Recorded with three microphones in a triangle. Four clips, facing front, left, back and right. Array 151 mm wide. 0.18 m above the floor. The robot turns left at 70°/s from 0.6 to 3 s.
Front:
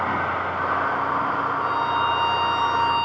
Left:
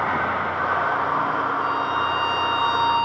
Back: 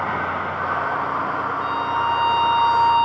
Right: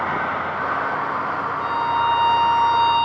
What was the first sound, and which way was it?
A violin, 70° right.